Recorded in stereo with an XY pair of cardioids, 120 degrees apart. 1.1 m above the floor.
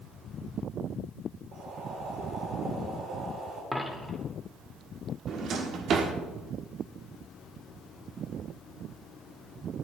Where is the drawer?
55° right, 1.3 m.